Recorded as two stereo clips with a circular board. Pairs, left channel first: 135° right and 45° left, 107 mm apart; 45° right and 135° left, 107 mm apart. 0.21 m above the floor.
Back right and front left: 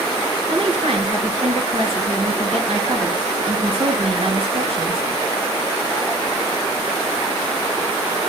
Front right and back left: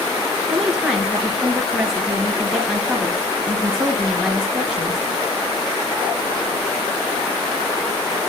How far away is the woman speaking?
About 3.5 m.